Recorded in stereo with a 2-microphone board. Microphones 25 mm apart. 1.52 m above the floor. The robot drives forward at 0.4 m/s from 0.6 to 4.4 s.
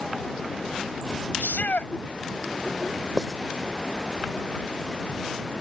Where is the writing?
15° right (ahead or behind).